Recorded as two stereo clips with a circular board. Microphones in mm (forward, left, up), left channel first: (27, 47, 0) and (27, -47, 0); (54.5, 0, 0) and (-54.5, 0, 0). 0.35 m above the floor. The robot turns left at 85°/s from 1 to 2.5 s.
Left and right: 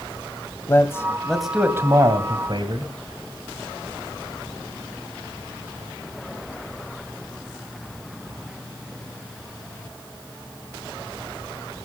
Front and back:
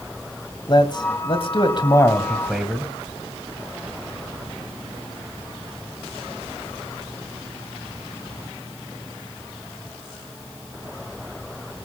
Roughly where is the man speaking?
Ahead left.